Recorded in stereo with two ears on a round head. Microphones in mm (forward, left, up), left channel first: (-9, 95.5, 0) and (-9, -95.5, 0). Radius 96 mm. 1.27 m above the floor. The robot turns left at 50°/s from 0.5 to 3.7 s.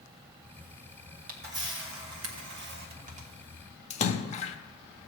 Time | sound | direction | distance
1.3 | a camera shutter | 40° right (ahead or behind) | 1.4 m
3.9 | a splash | 30° left (ahead or behind) | 0.7 m